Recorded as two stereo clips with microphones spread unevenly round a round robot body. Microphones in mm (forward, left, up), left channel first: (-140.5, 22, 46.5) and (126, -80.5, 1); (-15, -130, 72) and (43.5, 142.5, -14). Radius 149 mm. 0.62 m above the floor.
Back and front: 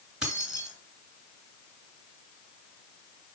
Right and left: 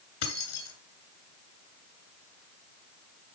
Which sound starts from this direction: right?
Keys jangling, at 0.2 s.